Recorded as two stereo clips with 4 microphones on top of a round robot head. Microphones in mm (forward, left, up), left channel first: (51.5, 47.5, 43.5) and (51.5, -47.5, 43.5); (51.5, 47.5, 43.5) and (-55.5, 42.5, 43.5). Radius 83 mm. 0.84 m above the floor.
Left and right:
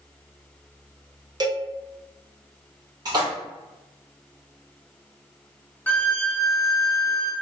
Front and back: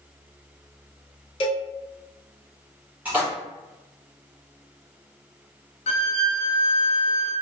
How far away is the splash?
About 1.3 m.